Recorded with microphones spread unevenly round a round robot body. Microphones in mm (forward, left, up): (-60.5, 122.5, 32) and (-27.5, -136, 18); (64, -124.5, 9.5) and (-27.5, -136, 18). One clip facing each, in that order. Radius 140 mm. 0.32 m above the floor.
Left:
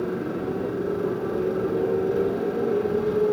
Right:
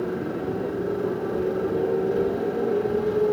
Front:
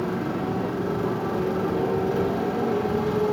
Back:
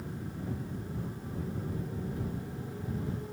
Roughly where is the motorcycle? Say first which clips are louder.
Even, front 15 dB; ahead.